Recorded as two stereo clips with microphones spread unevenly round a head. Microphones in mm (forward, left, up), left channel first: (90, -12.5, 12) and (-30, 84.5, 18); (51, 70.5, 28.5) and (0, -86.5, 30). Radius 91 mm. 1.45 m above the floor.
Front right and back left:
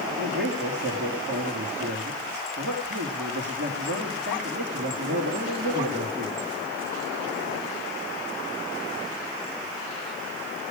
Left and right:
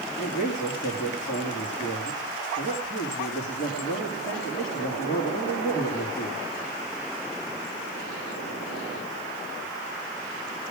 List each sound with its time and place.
0.2 s a man speaking: 130° left, 2.5 m